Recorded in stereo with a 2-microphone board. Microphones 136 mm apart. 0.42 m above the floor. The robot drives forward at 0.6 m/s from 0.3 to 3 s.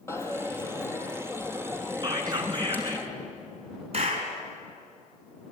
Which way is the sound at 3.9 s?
50° right (ahead or behind).